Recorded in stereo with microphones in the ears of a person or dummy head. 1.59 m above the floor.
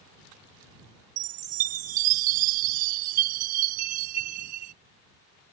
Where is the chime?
50° right (ahead or behind).